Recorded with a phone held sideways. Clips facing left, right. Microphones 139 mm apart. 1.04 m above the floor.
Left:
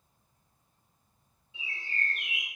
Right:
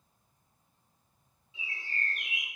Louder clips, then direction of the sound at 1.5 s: Left 1 dB; 55° left (ahead or behind).